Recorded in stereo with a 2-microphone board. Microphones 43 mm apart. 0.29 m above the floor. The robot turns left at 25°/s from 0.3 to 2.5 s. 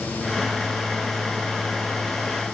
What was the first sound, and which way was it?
Only background noise.